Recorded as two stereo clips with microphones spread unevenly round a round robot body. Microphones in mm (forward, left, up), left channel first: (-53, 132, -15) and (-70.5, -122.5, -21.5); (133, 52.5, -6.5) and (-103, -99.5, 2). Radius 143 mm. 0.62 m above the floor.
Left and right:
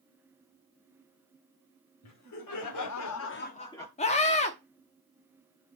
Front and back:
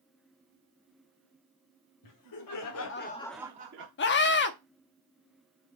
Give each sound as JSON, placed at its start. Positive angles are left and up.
{"t": 2.0, "sound": "laughter", "azimuth_deg": 50, "distance_m": 2.0}
{"t": 4.0, "sound": "a scream", "azimuth_deg": 30, "distance_m": 0.9}